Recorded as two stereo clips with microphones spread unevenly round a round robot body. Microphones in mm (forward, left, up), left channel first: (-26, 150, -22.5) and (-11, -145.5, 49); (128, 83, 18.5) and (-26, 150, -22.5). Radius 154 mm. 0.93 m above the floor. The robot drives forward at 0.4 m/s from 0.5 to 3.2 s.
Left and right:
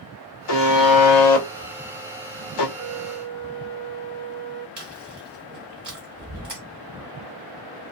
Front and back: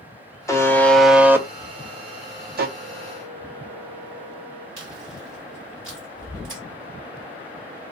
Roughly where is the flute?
Right.